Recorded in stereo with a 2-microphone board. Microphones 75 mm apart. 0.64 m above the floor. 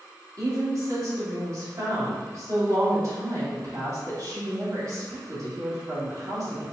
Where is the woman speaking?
50° right (ahead or behind), 1.8 m.